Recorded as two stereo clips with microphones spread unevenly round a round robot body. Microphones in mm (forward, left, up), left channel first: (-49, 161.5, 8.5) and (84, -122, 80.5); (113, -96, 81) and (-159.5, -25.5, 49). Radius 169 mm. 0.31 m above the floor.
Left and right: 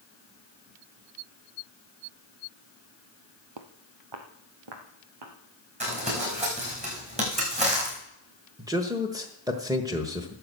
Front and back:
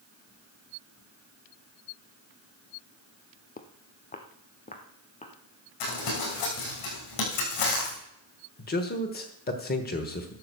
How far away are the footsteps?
About 0.9 m.